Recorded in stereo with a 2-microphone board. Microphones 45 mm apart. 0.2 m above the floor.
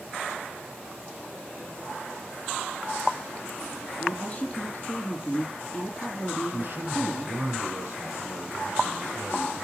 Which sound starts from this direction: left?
A woman speaking, at 4.0 s.